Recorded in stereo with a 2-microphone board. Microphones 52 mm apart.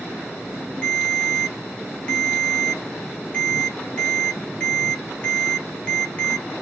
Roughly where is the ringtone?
Centre.